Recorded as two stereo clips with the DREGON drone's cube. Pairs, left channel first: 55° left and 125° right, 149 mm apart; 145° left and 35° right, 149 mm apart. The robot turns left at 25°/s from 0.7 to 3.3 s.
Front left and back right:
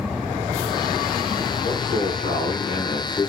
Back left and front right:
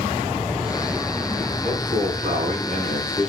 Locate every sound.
1.6 s a man speaking: 40° left, 8 m; by 3.3 s straight ahead, 8 m